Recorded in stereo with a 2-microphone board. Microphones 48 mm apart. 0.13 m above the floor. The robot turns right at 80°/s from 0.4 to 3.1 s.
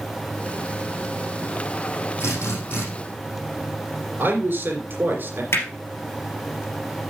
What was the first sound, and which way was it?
A drill, 80° left.